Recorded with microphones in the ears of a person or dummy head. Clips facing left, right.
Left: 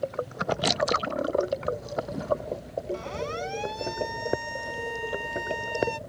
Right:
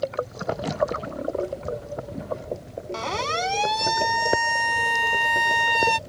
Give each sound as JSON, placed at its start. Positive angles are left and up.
{"t": 2.9, "sound": "a siren", "side_deg": -80}